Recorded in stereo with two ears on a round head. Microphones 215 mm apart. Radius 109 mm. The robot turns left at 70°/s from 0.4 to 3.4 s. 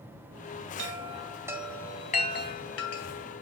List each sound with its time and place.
0.8 s a chime: 55° right (ahead or behind), 1.7 m; by 3.4 s 50° left (ahead or behind), 1.7 m